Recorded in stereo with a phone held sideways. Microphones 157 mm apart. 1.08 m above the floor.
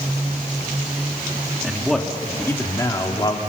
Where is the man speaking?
5° right (ahead or behind), 1.9 m; by 3.4 s 30° left (ahead or behind), 2.5 m.